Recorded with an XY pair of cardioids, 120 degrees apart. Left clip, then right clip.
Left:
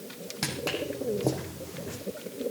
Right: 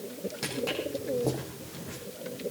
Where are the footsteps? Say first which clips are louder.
Left 1 dB; 35° left, 4.5 m; by 2.0 s 20° left, 5 m.